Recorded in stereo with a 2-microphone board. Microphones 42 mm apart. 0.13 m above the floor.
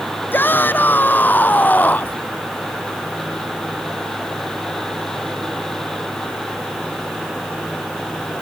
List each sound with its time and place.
0.3 s a shout: 55° left (ahead or behind); by 2.2 s 40° left (ahead or behind)